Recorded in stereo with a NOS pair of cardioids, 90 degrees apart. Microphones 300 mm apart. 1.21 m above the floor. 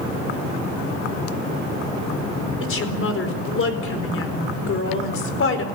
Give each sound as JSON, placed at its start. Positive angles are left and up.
{"t": 2.6, "sound": "a woman speaking", "azimuth_deg": 45, "distance_m": 4.5}